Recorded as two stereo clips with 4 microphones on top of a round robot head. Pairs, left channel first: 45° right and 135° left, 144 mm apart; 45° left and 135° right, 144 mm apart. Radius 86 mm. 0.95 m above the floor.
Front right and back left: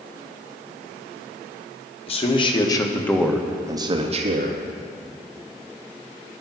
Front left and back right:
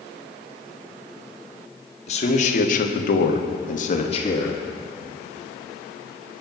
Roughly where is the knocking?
No knocking in this recording.